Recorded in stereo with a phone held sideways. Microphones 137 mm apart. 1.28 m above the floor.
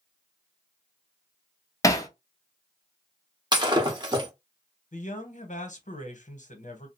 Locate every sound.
1.8 s hammering: 25° left (ahead or behind), 0.6 m
3.5 s breaking glass: 30° right (ahead or behind), 0.8 m
4.9 s a man speaking: 65° left (ahead or behind), 0.9 m